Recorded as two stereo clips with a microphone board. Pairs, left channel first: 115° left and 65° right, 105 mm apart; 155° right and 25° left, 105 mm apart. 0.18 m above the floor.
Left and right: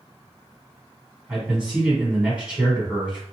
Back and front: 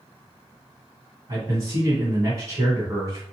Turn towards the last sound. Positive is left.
turn(degrees=5)